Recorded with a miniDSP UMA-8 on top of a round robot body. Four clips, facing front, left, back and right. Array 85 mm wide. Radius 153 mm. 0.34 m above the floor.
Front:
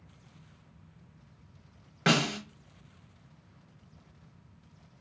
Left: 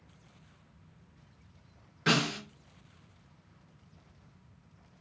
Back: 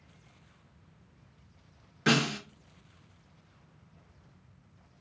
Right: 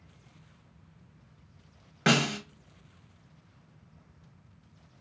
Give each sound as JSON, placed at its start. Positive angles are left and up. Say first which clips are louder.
{"t": 2.1, "sound": "a snare drum", "louder": "right 3 dB, even", "azimuth_deg": -50, "distance_m": 1.2}